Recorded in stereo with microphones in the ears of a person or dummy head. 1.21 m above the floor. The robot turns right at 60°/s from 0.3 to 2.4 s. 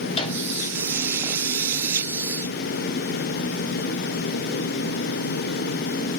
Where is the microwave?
30° left (ahead or behind), 3 m; by 0.4 s 40° left (ahead or behind), 3 m.